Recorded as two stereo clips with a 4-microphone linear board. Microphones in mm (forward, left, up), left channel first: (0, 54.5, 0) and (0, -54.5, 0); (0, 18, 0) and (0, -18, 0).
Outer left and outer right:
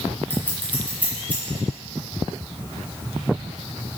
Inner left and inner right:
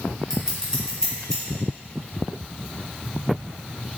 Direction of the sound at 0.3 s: 15° left (ahead or behind).